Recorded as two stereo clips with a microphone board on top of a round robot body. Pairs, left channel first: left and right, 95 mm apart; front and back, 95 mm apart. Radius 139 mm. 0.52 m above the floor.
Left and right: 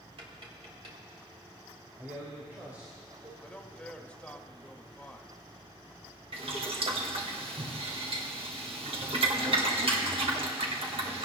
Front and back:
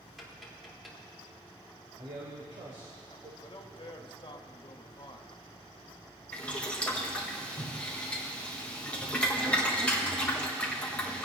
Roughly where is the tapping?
Right.